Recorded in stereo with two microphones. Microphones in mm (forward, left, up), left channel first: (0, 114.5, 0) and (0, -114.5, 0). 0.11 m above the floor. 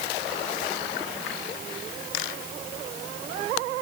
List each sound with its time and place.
Only background noise.